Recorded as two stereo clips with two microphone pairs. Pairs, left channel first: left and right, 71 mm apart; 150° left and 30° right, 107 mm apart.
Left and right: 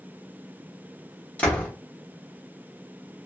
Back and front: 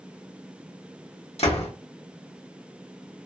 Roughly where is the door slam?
Behind.